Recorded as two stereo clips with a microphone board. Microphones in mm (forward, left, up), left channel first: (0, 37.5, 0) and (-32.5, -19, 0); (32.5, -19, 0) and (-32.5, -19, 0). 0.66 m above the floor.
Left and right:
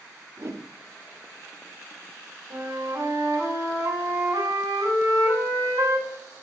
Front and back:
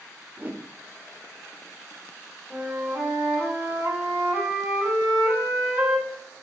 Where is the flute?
105° right, 4.5 m.